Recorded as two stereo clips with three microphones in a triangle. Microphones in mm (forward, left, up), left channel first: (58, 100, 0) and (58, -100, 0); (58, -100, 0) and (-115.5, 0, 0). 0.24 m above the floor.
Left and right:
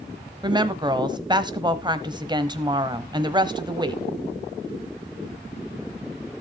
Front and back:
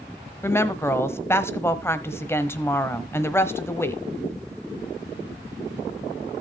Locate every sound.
0.4 s a woman speaking: 85° right, 0.9 m